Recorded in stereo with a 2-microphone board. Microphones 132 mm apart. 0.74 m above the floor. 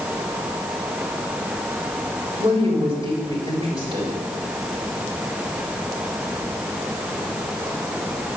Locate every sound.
2.4 s a woman speaking: 45° right (ahead or behind), 4 m